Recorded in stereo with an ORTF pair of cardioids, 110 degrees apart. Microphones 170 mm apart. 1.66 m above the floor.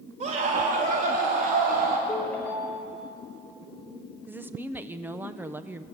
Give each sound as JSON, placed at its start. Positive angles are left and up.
{"t": 0.2, "sound": "a scream", "azimuth_deg": -40, "distance_m": 3.5}
{"t": 2.1, "sound": "a ringtone", "azimuth_deg": 10, "distance_m": 5.0}
{"t": 4.3, "sound": "a woman speaking", "azimuth_deg": -10, "distance_m": 1.2}